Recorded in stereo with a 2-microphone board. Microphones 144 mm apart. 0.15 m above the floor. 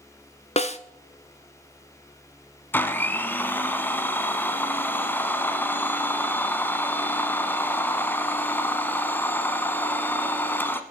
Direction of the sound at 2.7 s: 15° left (ahead or behind).